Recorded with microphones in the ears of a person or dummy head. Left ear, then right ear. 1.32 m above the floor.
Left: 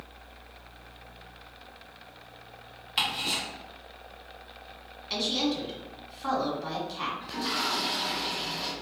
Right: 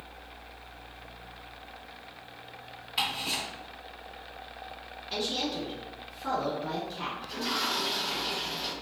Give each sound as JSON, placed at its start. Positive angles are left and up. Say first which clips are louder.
{"t": 3.0, "sound": "ticking", "louder": "left 2 dB", "side_deg": 20, "distance_m": 1.2}
{"t": 5.1, "sound": "a woman speaking", "louder": "left 3 dB", "side_deg": 55, "distance_m": 1.5}
{"t": 7.2, "sound": "a toilet flushing", "louder": "right 1 dB", "side_deg": 5, "distance_m": 1.8}